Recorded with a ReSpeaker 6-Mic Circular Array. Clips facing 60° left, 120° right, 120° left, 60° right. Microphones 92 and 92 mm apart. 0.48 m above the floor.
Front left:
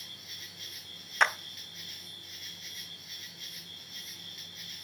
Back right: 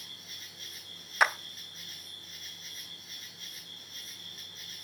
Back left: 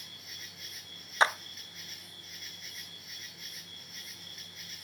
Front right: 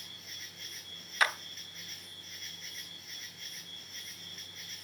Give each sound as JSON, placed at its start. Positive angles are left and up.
{"t": 0.0, "sound": "an insect", "azimuth_deg": -155, "distance_m": 2.5}
{"t": 1.2, "sound": "a clap", "azimuth_deg": 160, "distance_m": 0.6}